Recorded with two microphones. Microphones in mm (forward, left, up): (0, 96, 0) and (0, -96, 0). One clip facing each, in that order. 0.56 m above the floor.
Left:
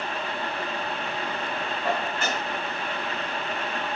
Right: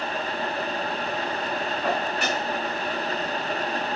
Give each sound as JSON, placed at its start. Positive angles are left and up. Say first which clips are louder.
{"t": 1.8, "sound": "dishes clattering", "louder": "right 1 dB", "side_deg": -70, "distance_m": 4.5}